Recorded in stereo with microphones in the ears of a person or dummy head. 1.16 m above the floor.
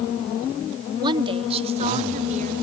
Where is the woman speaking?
25° right (ahead or behind); by 2.5 s 45° right (ahead or behind).